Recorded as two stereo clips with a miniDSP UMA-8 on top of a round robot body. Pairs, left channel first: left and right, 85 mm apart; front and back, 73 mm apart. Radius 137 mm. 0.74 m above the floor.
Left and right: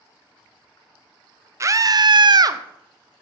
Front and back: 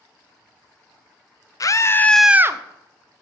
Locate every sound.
1.6 s a scream: 35° right, 1.0 m; by 2.6 s 135° right, 0.8 m